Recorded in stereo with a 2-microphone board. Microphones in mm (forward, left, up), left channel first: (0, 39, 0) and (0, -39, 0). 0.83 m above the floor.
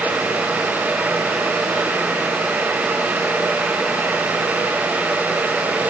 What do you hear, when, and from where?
Only background noise.